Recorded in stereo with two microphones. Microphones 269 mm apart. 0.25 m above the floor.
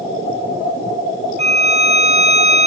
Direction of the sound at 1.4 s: 40° left (ahead or behind).